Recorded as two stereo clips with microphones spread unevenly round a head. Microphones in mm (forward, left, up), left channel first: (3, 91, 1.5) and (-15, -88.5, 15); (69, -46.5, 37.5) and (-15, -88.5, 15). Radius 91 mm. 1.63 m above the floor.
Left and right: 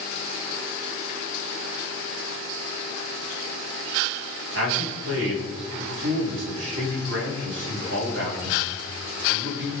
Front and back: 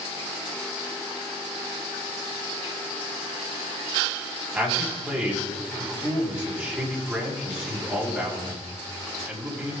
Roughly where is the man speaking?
Right.